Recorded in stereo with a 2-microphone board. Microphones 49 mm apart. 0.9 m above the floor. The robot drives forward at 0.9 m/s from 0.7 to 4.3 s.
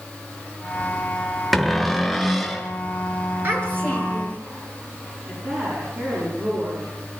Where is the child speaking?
50° right (ahead or behind), 6.5 m; by 4.4 s 45° right (ahead or behind), 7 m.